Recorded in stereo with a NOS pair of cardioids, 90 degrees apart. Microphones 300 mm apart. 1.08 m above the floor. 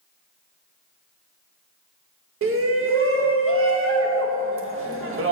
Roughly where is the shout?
Ahead right.